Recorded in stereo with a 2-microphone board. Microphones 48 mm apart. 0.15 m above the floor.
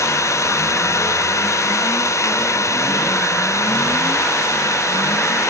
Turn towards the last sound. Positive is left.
turn(degrees=90)